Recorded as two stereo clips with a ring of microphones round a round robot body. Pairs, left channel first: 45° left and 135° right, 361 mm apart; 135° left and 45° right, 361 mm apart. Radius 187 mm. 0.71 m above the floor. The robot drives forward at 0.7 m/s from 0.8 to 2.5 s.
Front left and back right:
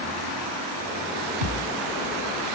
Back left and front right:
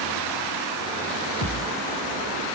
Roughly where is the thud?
Behind right.